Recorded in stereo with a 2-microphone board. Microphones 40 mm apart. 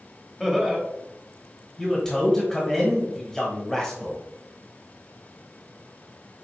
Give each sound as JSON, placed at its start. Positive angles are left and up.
{"t": 0.4, "sound": "laughter", "side_deg": 0, "distance_m": 0.9}
{"t": 1.8, "sound": "a man speaking", "side_deg": 15, "distance_m": 1.1}